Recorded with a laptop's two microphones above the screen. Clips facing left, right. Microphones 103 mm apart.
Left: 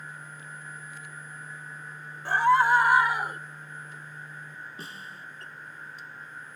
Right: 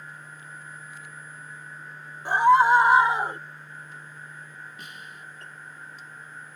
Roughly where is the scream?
Centre.